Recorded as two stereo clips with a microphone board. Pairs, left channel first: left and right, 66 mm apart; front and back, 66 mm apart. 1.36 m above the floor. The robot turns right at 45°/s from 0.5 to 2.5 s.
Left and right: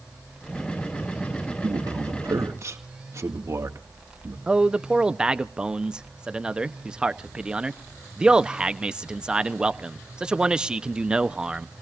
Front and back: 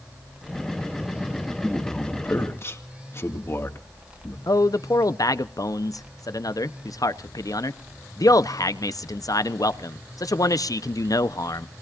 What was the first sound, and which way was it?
A man speaking, 90° right.